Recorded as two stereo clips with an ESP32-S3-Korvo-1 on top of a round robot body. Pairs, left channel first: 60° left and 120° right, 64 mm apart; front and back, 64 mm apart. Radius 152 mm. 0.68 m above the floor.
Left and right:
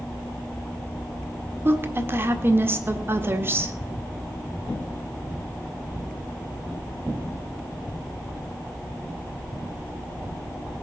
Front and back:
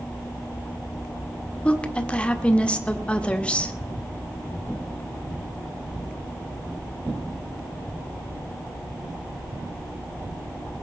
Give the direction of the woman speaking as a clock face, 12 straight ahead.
2 o'clock.